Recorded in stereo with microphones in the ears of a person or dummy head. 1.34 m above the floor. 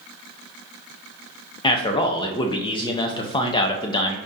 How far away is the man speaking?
About 0.5 m.